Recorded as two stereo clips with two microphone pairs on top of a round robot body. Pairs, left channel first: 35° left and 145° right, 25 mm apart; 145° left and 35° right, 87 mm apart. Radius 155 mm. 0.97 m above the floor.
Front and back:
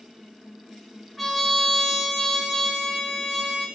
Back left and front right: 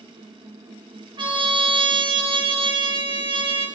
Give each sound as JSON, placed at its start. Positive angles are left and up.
{"t": 1.2, "sound": "a trumpet", "azimuth_deg": -65, "distance_m": 4.0}